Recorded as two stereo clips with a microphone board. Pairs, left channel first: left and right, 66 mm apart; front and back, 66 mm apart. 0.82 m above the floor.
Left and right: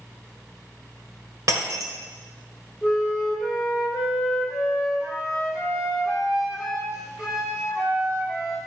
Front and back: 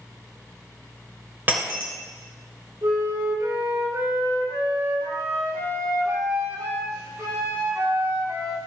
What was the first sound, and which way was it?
Breaking glass, 120° right.